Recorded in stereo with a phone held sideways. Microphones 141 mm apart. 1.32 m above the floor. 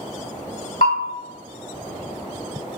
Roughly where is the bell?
Left.